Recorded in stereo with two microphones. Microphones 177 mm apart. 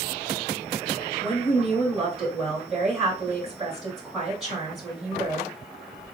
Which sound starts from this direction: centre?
A woman speaking, at 1.2 s.